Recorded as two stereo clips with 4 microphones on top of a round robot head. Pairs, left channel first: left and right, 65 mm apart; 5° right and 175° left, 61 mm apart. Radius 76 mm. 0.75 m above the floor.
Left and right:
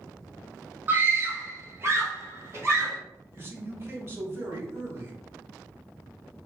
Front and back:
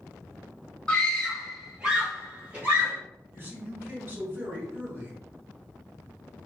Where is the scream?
70° right, 1.1 m; by 3.0 s 135° right, 1.9 m.